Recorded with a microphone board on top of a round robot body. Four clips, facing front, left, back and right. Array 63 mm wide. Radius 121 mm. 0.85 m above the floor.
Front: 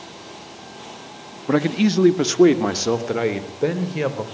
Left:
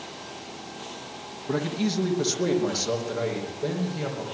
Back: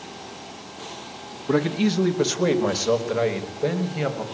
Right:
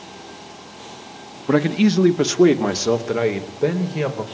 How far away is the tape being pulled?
I don't hear tape being pulled.